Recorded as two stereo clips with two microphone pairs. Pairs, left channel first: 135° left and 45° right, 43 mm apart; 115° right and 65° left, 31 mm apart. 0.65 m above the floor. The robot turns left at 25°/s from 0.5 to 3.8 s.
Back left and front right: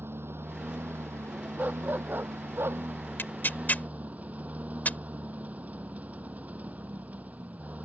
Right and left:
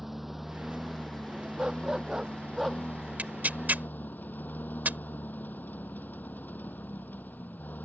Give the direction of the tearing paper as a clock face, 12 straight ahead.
9 o'clock.